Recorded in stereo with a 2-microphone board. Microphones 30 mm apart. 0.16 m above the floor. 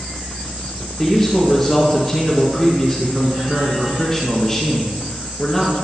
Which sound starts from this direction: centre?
A man speaking, at 1.0 s.